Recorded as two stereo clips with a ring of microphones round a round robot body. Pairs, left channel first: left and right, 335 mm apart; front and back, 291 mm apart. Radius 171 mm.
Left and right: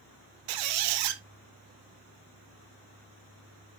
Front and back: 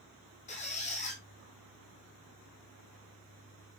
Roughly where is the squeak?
Right.